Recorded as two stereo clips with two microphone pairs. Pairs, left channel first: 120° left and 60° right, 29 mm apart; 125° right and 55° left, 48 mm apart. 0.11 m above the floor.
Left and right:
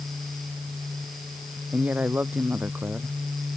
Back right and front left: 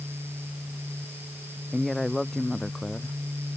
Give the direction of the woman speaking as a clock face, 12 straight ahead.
1 o'clock.